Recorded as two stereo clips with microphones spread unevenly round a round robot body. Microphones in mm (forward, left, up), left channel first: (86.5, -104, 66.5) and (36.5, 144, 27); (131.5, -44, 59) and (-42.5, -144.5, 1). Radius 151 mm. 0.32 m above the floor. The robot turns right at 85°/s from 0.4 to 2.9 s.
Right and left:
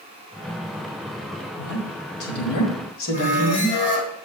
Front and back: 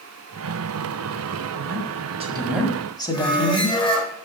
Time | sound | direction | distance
1.6 | a woman speaking | 165° right | 1.7 m
3.1 | a squeak | 35° right | 3 m